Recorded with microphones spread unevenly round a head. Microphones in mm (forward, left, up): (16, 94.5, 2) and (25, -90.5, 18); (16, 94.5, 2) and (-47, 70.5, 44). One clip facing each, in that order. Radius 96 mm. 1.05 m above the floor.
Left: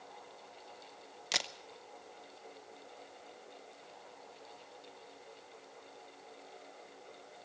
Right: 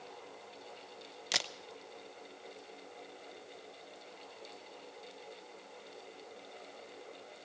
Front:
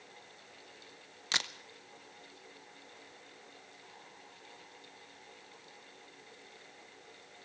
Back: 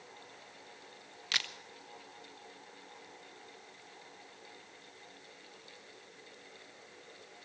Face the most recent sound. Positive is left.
turn(degrees=5)